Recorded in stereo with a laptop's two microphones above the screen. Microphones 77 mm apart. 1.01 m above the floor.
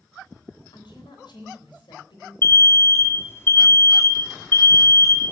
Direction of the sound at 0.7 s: 85° left.